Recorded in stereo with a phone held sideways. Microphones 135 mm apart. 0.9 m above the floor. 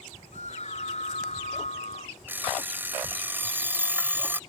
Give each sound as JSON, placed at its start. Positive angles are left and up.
{"t": 0.3, "sound": "a scream", "side_deg": 55}
{"t": 2.3, "sound": "an alarm clock", "side_deg": -15}